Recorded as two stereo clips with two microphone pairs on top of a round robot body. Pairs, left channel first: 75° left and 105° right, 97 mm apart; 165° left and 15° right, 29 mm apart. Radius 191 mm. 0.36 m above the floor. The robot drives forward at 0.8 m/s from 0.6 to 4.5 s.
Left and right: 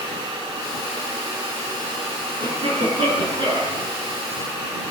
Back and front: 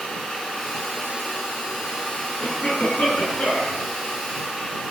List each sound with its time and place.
2.4 s a cough: 145° right, 7.5 m; by 3.8 s 150° right, 8.5 m